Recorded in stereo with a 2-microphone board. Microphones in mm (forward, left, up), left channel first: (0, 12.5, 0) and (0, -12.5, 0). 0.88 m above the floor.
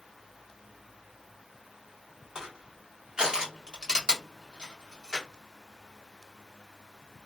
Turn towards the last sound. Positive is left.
turn(degrees=-35)  # may be behind; listen again after turning